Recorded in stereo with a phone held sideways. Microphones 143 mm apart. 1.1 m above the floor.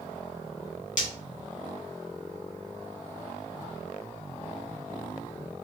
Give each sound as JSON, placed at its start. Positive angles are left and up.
{"t": 1.0, "sound": "breaking glass", "side_deg": 65, "distance_m": 2.0}